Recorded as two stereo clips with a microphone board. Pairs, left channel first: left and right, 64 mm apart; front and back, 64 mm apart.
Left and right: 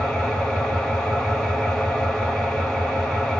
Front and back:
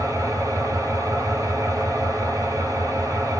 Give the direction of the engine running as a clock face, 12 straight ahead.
6 o'clock.